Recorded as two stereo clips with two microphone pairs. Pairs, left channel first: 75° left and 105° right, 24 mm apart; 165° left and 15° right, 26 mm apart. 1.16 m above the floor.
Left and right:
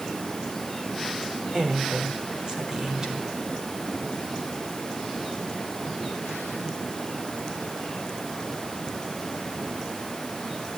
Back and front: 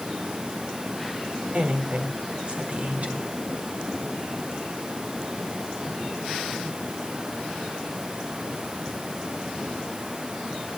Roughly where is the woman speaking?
Ahead right.